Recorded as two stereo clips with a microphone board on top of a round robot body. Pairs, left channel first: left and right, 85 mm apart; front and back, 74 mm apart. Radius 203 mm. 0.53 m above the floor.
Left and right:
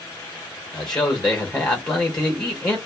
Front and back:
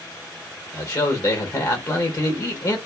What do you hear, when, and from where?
0.7 s a man speaking: 10° left, 1.5 m